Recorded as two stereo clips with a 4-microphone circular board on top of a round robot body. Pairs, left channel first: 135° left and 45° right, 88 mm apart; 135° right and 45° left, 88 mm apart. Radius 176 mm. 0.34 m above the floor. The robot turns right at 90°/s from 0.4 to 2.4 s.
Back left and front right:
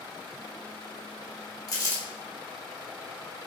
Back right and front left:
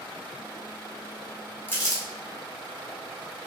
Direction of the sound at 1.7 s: 165° left.